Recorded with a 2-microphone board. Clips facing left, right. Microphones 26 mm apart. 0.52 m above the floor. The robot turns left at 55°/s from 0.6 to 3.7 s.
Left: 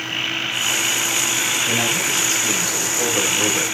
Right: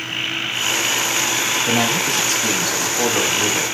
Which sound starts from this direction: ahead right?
A man speaking, at 1.7 s.